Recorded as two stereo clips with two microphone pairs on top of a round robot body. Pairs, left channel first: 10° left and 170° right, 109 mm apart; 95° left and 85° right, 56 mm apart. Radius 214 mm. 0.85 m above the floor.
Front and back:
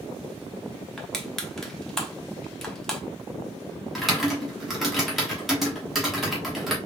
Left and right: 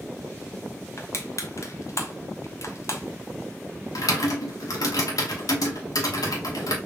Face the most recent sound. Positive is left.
turn(degrees=100)